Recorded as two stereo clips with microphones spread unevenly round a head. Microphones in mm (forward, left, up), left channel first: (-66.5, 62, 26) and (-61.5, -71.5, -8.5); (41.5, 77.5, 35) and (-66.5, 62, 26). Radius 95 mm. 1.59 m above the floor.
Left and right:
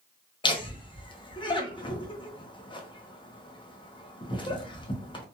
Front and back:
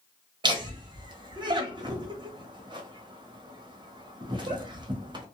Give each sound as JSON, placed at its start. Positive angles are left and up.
{"t": 0.4, "sound": "laughter", "azimuth_deg": 140, "distance_m": 1.0}